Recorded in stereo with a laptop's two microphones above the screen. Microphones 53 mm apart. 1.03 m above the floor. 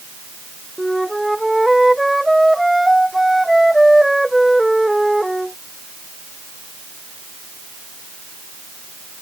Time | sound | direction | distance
0.8 | a flute | 5° right (ahead or behind) | ?